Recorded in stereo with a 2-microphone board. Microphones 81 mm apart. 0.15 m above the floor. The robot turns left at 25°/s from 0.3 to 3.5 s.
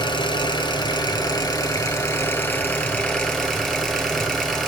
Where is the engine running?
80° left, 1.6 m; by 4.7 s straight ahead, 1.6 m.